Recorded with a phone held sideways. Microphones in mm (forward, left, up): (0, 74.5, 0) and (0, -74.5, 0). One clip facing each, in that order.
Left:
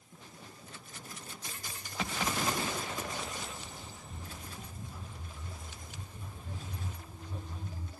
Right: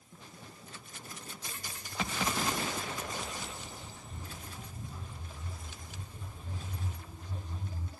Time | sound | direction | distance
1.6 | footsteps | 5° left (ahead or behind) | 1.9 m